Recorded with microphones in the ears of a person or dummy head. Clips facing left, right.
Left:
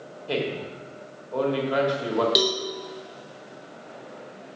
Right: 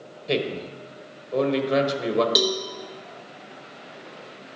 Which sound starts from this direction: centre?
A cowbell, at 2.4 s.